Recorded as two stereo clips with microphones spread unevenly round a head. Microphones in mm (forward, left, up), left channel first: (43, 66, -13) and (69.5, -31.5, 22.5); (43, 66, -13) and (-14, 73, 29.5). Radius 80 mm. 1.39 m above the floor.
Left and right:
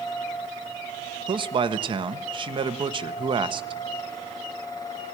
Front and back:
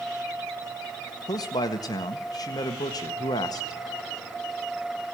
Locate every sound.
1.3 s a man speaking: 40° right, 1.5 m